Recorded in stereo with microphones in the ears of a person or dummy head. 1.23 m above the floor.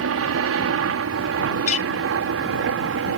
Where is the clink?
35° left (ahead or behind).